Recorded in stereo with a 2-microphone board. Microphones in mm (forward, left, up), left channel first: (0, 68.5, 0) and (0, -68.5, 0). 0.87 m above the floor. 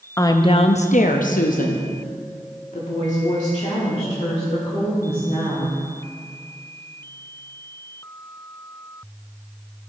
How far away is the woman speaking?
About 0.6 m.